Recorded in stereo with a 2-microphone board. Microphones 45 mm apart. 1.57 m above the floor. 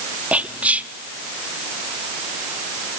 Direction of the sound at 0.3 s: 30° right (ahead or behind).